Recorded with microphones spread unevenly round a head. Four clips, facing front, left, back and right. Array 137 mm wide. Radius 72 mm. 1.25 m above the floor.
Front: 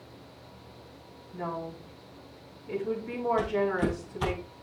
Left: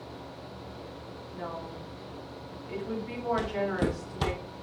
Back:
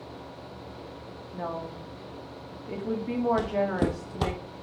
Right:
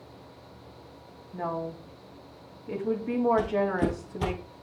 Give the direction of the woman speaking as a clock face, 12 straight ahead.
4 o'clock.